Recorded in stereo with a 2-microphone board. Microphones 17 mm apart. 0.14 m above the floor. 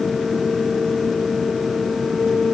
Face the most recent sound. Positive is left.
No sound to turn to.